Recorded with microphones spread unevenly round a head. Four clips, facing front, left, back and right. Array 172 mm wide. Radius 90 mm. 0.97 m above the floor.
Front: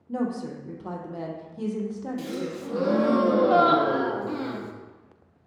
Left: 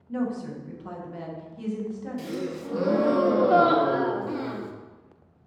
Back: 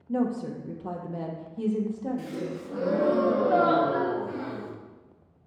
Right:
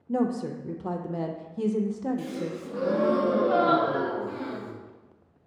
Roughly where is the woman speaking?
Right.